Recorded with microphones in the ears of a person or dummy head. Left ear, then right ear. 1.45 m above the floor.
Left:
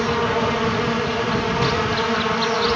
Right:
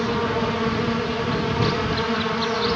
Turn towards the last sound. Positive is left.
turn(degrees=20)  # may be behind; listen again after turning